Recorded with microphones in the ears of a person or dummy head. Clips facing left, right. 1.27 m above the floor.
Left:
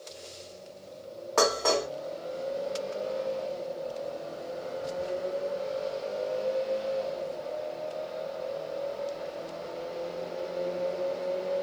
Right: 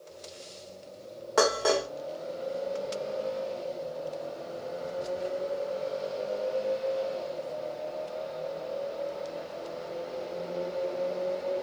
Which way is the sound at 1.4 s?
10° right (ahead or behind).